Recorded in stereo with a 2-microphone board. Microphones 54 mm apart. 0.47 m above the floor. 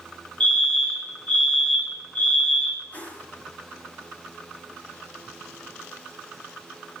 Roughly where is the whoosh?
Left.